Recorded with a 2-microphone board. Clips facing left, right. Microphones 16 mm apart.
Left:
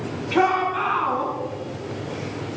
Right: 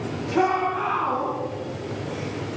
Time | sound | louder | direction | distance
0.3 | a shout | left 2 dB | 70° left (ahead or behind) | 3 m